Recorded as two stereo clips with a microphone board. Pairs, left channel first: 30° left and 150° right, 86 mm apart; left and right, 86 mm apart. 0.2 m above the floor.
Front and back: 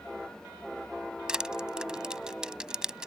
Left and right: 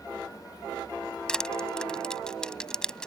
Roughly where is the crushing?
Behind left.